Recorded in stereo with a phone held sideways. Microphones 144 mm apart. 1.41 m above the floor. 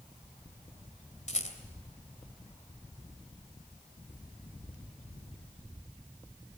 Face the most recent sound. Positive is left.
turn(degrees=55)  # may be behind; listen again after turning